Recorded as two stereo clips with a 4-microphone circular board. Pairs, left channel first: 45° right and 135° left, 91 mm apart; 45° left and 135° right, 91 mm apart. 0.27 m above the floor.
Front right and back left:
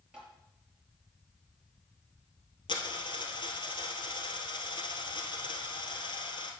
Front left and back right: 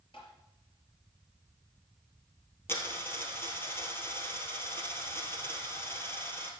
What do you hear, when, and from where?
0.1 s tapping: 55° left, 4.5 m
2.7 s a dropped coin: 20° right, 2 m